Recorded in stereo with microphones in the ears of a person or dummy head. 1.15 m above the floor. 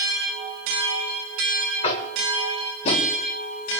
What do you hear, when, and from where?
1.8 s tapping: 30° left (ahead or behind), 1.6 m